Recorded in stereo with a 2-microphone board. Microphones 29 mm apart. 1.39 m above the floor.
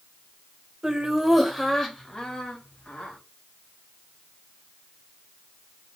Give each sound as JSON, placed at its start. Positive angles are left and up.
{"t": 0.8, "sound": "laughter", "side_deg": -20, "distance_m": 1.6}